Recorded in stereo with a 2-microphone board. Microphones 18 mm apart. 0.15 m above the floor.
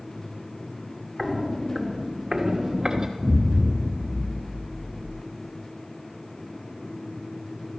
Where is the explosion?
60° left (ahead or behind), 4.5 m.